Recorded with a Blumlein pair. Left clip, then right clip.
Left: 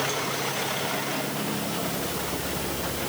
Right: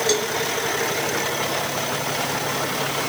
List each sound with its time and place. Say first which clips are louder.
0.1 s a cowbell: right 7 dB; 55° right